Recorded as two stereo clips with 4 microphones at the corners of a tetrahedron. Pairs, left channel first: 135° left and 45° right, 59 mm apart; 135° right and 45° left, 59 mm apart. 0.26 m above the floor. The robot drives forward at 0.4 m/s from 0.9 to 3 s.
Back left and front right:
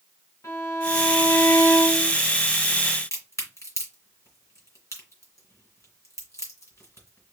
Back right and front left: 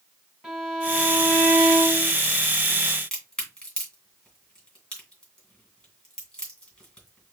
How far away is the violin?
About 2.5 m.